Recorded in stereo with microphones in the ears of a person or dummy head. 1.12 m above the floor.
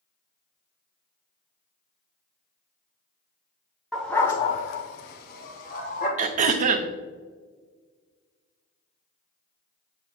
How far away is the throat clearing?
About 0.6 m.